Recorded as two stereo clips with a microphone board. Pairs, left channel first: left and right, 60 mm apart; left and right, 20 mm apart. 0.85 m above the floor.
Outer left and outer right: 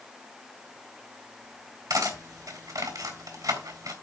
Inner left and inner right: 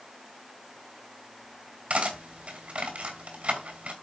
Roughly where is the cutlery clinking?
Right.